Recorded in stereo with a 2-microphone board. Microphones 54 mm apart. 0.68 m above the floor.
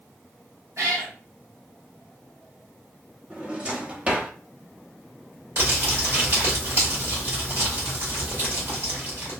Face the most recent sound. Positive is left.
turn(degrees=-45)  # may be behind; listen again after turning